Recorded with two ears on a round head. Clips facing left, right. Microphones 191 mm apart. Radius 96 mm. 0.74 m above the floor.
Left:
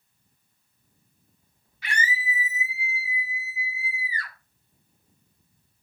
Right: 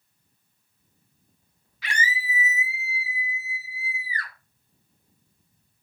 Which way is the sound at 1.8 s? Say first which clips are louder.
Even; 60° right (ahead or behind).